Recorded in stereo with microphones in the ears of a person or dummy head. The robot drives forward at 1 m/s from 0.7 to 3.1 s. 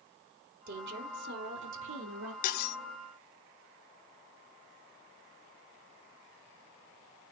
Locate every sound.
0.7 s a woman speaking: 60° right (ahead or behind), 3.5 m; by 2.3 s 80° right, 3 m
2.4 s cutlery clinking: 45° left (ahead or behind), 0.8 m; by 2.8 s 60° left (ahead or behind), 0.6 m